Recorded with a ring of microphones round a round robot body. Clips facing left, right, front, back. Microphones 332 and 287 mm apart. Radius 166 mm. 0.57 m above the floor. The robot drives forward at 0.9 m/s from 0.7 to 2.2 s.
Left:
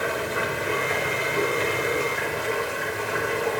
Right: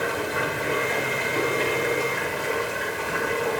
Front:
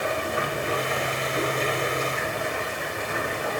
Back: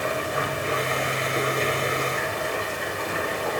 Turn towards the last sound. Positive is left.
turn(degrees=-120)